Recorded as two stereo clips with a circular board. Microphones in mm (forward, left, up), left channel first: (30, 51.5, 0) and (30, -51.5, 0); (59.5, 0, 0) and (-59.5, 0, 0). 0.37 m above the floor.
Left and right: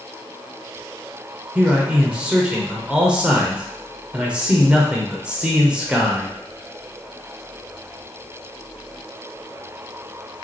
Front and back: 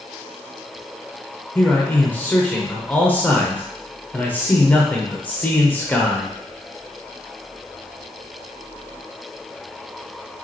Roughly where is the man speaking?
Ahead right.